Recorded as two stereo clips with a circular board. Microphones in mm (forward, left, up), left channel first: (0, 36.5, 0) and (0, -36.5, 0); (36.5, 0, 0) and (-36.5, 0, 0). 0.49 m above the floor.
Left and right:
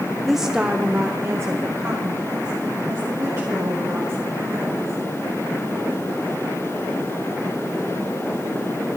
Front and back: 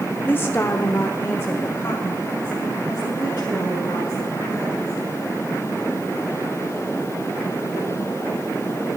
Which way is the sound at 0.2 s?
10° left.